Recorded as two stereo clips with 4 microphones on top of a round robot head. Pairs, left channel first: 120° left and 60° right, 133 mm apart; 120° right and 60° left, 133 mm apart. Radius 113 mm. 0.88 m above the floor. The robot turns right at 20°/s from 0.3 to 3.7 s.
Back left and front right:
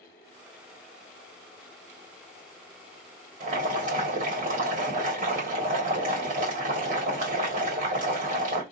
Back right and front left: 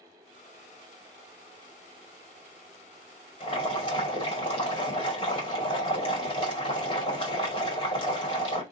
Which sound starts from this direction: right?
Boiling, at 3.4 s.